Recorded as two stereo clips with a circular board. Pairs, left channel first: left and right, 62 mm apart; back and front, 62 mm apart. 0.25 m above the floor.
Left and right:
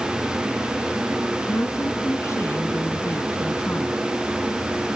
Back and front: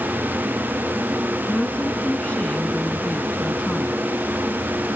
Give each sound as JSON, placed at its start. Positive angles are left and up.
{"t": 1.5, "sound": "a woman speaking", "azimuth_deg": 115}